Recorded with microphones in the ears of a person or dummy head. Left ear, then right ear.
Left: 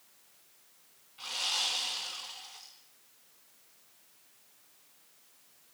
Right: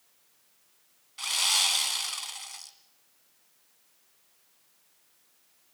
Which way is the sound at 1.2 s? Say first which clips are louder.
Right 7 dB; 50° right (ahead or behind).